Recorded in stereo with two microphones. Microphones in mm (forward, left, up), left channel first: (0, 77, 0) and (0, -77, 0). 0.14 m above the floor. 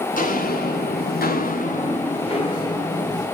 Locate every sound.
0.1 s footsteps: 60° left (ahead or behind), 1.0 m; by 3.2 s 20° left (ahead or behind), 1.5 m